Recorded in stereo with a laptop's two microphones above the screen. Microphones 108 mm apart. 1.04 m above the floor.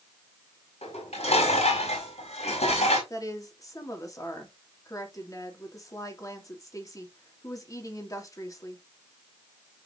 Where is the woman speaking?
30° left (ahead or behind), 2.5 m.